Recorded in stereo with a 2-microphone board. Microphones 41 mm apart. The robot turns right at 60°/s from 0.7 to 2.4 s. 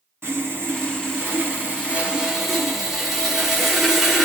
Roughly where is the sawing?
Right.